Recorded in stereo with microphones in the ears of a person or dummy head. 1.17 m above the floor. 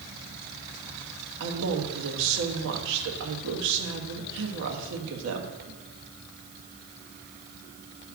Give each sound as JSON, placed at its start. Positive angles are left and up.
{"t": 1.4, "sound": "a man speaking", "side_deg": -70, "distance_m": 1.4}